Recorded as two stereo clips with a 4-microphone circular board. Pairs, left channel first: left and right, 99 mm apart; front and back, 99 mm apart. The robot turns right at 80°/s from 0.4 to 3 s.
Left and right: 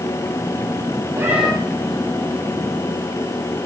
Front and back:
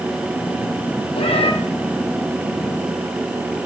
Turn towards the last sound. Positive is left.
turn(degrees=120)